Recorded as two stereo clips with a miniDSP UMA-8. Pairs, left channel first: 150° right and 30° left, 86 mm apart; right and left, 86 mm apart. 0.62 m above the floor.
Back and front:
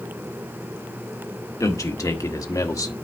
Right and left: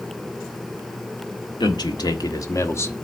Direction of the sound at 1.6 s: 105° right.